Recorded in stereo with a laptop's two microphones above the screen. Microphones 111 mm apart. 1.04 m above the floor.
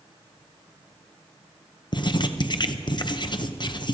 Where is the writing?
45° left (ahead or behind), 0.7 m.